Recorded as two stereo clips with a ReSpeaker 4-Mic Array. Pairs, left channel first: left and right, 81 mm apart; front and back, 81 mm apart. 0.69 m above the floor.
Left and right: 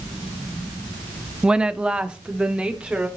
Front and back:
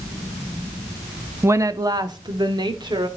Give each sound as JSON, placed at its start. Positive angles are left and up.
{"t": 1.4, "sound": "a woman speaking", "azimuth_deg": -160, "distance_m": 0.5}